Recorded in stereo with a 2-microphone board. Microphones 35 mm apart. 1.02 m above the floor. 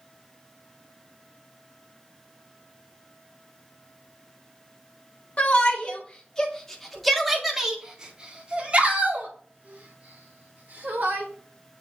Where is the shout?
40° left (ahead or behind), 1.9 m; by 11.2 s 55° right (ahead or behind), 3.5 m.